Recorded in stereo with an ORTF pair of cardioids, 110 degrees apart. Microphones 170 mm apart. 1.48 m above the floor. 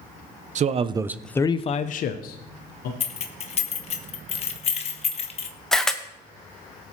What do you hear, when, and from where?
0.6 s a man speaking: 45° right, 0.8 m; by 2.9 s 70° left, 1.5 m
3.0 s keys jangling: 40° left, 1.1 m
5.7 s a camera shutter: 5° left, 0.9 m